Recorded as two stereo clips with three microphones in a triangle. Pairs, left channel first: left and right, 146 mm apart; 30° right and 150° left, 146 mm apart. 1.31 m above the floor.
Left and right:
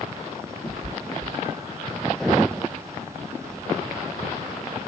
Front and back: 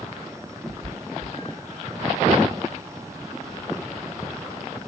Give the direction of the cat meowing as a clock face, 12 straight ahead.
10 o'clock.